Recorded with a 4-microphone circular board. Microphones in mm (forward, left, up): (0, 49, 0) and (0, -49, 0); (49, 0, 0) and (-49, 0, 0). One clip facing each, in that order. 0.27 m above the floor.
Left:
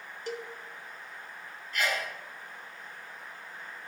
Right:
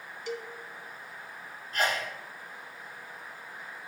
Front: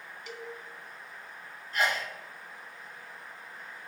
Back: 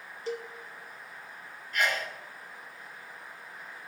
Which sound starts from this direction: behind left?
A cowbell, at 0.3 s.